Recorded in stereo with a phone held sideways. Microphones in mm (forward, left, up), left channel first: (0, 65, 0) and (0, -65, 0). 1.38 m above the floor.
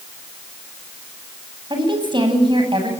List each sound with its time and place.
1.7 s a woman speaking: 40° right (ahead or behind), 9 m